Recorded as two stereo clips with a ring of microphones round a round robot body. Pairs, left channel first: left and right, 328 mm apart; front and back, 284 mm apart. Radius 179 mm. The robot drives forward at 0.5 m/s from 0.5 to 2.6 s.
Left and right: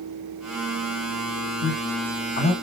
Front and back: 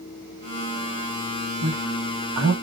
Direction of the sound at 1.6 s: 145° left.